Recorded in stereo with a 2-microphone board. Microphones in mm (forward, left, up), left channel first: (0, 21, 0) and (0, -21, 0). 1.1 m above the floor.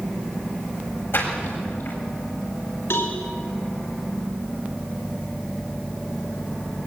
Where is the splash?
60° left (ahead or behind), 7 m.